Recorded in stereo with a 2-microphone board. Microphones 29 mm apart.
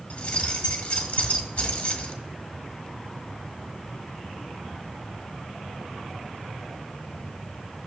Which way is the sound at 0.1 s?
45° left (ahead or behind).